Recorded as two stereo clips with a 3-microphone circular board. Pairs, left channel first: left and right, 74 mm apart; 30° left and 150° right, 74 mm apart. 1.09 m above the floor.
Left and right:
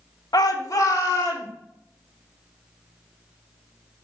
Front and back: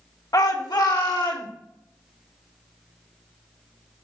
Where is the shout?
65° left, 1.3 m; by 1.5 s 40° left, 2.5 m.